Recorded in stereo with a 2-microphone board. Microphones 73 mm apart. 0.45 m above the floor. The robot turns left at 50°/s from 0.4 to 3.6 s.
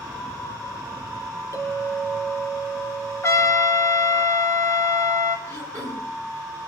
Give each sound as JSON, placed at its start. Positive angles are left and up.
{"t": 1.5, "sound": "a clink", "azimuth_deg": 140, "distance_m": 4.5}
{"t": 3.2, "sound": "a trumpet", "side_deg": 40, "distance_m": 1.0}
{"t": 5.5, "sound": "throat clearing", "side_deg": 45, "distance_m": 4.0}